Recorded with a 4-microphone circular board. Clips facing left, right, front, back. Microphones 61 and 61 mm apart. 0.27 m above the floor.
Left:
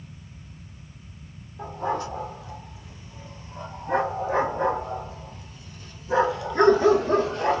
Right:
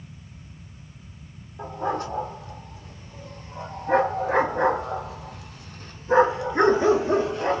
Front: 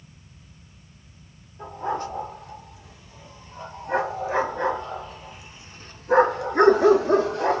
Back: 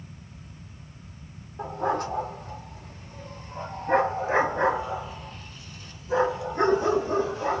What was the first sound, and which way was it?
A dog barking, 145° right.